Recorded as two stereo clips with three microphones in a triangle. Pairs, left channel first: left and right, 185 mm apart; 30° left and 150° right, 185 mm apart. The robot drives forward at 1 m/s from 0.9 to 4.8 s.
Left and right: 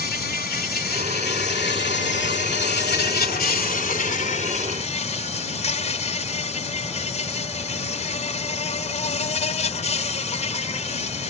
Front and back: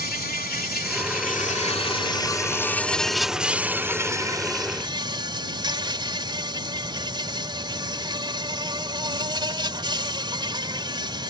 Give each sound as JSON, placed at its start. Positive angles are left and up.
{"t": 0.0, "sound": "an insect", "azimuth_deg": 60}